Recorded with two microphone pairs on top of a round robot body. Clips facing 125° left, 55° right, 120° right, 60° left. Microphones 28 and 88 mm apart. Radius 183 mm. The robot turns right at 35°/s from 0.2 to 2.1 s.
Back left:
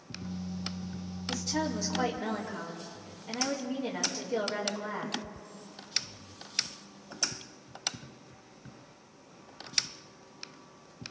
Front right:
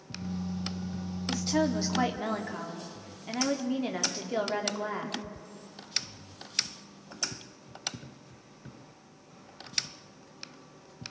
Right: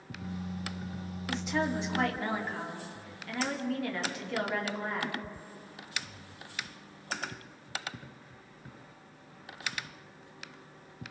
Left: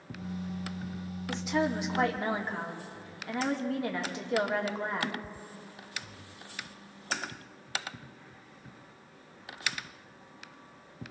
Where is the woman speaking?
35° right, 2.5 m; by 5.2 s 5° right, 2.5 m.